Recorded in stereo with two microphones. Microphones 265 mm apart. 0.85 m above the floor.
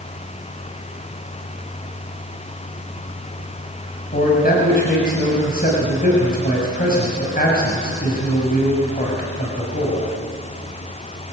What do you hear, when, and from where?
4.1 s a man speaking: 35° left (ahead or behind), 5.5 m